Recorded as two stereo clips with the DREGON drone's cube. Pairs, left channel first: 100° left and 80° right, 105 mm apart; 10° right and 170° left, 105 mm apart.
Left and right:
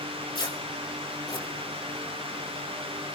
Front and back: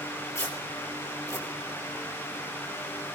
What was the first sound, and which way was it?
Tearing paper, 50° left.